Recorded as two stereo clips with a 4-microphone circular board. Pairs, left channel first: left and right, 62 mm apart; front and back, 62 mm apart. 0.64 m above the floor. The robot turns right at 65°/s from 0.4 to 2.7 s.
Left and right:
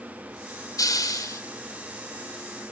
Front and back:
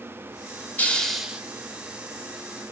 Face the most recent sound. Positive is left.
turn(degrees=-165)